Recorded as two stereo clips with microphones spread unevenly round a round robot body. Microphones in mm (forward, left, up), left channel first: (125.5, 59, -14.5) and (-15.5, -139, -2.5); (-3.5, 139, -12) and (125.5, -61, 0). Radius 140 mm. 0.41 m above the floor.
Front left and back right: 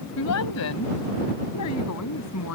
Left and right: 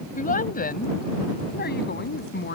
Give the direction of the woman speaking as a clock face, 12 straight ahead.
10 o'clock.